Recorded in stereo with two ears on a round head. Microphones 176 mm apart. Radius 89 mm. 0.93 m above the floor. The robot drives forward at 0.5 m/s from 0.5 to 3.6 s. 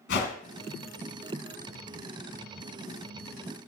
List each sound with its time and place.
0.1 s a whoosh: 55° left (ahead or behind), 2 m